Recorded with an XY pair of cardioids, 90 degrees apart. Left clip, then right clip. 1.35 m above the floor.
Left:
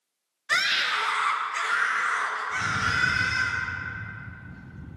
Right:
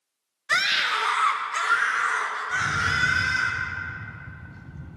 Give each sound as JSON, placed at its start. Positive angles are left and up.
{"t": 0.5, "sound": "a scream", "azimuth_deg": -25, "distance_m": 0.5}
{"t": 2.5, "sound": "a rattle", "azimuth_deg": -65, "distance_m": 2.5}